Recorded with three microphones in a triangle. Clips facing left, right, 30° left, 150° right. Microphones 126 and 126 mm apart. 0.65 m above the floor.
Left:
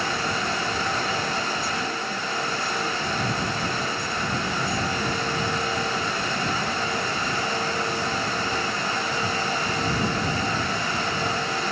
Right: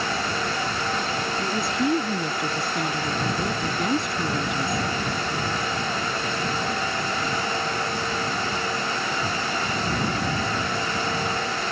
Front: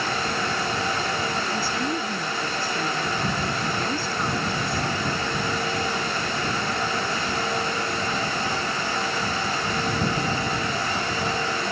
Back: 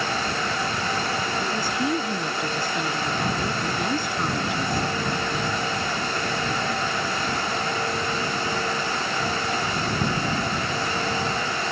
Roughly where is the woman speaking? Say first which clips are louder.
Right 4 dB, back 1 dB; right.